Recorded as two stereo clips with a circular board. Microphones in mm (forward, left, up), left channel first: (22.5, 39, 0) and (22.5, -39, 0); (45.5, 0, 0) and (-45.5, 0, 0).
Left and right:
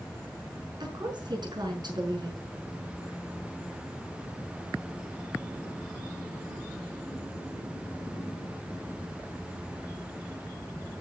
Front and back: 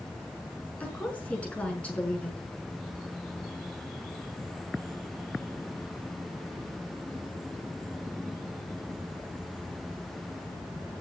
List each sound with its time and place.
0.8 s a woman speaking: 75° right, 5.5 m